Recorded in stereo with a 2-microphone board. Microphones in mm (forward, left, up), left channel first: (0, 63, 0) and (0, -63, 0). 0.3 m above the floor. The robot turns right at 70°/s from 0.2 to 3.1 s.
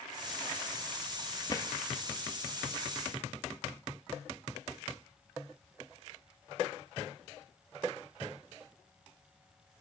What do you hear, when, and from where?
1.5 s a drawer: 30° left (ahead or behind), 1.6 m; by 1.7 s 15° left (ahead or behind), 1.6 m